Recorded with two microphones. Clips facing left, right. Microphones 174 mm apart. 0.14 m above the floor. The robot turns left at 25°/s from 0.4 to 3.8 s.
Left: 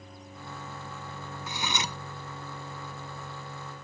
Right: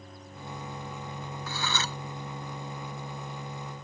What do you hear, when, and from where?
1.5 s cutlery clinking: 20° left (ahead or behind); by 2.0 s 15° left (ahead or behind)